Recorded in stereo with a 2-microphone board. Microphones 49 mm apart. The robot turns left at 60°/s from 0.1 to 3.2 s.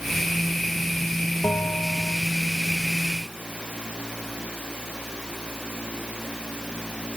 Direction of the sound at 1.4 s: 125° left.